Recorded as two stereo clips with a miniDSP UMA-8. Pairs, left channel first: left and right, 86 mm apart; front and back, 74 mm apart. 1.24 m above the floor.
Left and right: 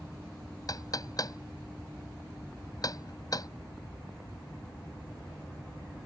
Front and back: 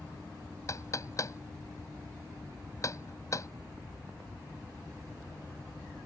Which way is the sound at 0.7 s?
45° left.